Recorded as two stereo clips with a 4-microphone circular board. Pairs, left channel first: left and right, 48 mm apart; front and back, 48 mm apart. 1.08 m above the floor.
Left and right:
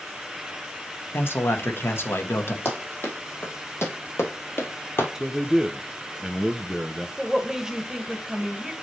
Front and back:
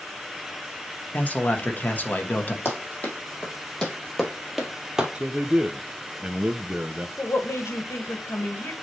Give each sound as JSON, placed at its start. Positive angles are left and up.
{"t": 1.1, "sound": "a man speaking", "azimuth_deg": 55, "distance_m": 1.2}
{"t": 2.6, "sound": "running footsteps", "azimuth_deg": 50, "distance_m": 3.0}
{"t": 5.2, "sound": "a man speaking", "azimuth_deg": -160, "distance_m": 0.7}
{"t": 7.2, "sound": "a woman speaking", "azimuth_deg": -10, "distance_m": 1.3}